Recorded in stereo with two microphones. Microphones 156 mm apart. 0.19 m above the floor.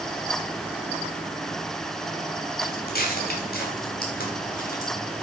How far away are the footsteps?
About 5 m.